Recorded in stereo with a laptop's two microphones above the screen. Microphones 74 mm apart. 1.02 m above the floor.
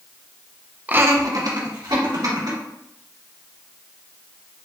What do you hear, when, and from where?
0.9 s laughter: 20° right (ahead or behind), 0.7 m; by 2.6 s 75° right (ahead or behind), 3 m